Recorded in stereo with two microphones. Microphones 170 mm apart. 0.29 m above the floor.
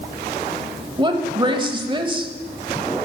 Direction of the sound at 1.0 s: 30° right (ahead or behind).